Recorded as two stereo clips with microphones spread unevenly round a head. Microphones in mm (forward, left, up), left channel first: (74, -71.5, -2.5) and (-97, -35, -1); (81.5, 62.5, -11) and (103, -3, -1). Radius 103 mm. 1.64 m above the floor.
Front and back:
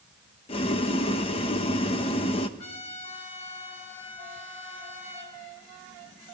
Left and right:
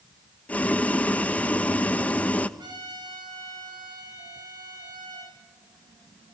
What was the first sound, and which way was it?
Boiling, 40° left.